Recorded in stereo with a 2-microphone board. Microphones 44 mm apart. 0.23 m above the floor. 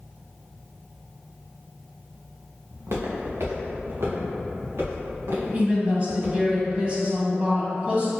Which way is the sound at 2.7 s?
80° right.